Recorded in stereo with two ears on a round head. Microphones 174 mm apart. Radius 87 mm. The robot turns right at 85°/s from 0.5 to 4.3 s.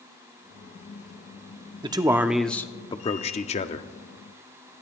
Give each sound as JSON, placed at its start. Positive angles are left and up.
{"t": 1.8, "sound": "a man speaking", "azimuth_deg": -50, "distance_m": 0.7}